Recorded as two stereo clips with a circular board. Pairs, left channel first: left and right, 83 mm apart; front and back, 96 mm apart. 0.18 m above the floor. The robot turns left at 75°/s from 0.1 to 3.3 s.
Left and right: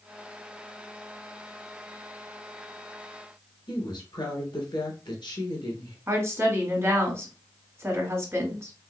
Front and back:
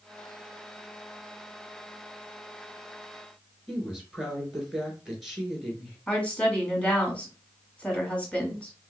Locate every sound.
3.7 s a woman speaking: 95° left, 2.5 m
6.1 s a woman speaking: 65° right, 1.8 m